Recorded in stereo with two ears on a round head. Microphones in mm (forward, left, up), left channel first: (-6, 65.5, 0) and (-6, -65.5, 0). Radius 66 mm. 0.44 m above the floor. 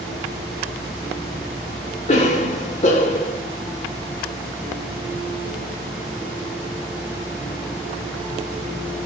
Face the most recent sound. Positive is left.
turn(degrees=45)  # may be behind; listen again after turning